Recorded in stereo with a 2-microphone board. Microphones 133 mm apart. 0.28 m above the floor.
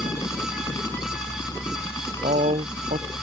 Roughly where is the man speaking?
Right.